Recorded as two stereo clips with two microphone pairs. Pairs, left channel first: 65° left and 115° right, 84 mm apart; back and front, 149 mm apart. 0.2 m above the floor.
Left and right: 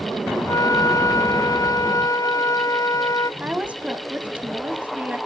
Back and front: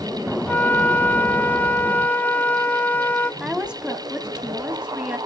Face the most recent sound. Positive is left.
turn(degrees=-70)